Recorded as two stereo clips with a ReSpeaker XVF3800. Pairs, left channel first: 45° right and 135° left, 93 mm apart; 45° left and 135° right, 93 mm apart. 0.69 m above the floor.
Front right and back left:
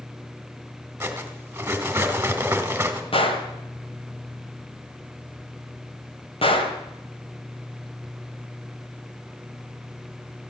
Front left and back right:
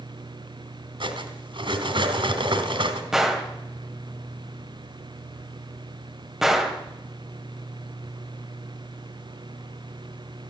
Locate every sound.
1.0 s cutlery clinking: 155° right, 2.5 m
3.1 s a gunshot: 50° right, 2 m